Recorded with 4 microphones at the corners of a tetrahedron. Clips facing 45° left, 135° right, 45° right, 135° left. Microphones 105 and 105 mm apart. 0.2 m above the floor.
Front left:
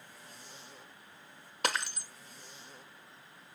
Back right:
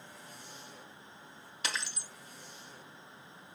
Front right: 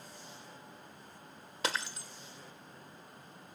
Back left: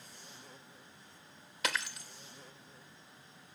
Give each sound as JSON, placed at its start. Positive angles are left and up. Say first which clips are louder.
{"t": 1.6, "sound": "breaking glass", "louder": "front left 5 dB, front right 1 dB", "azimuth_deg": 10, "distance_m": 1.2}